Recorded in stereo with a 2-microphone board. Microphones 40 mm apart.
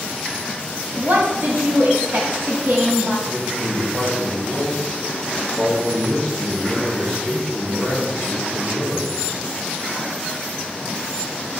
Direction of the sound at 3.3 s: 40° right (ahead or behind).